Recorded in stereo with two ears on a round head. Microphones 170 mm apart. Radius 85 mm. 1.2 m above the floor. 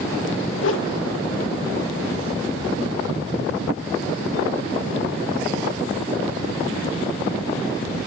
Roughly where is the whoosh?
Left.